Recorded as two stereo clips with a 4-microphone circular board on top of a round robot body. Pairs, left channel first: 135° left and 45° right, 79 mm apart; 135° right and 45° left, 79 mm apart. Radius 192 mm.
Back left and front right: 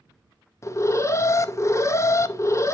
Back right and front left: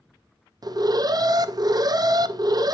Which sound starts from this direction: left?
An alarm, at 0.6 s.